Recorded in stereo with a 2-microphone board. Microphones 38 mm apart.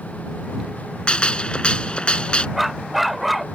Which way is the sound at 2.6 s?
Centre (ahead or behind).